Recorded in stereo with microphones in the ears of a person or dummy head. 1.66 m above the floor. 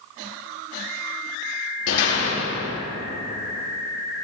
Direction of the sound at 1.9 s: 70° left (ahead or behind).